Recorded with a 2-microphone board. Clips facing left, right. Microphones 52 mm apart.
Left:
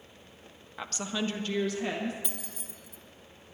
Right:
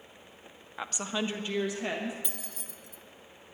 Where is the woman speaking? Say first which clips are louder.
Even; 10° right (ahead or behind), 0.6 m; by 2.1 s 15° right (ahead or behind), 1.4 m.